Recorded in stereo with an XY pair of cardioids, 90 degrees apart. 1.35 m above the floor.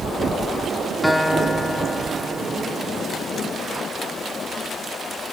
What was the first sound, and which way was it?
A guitar, straight ahead.